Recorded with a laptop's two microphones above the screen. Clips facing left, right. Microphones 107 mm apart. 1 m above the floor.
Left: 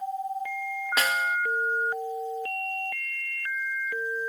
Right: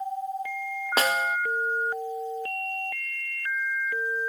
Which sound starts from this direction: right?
A snare drum, at 1.0 s.